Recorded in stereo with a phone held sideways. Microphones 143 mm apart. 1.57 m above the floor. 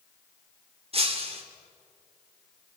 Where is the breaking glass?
45° right (ahead or behind), 3 m.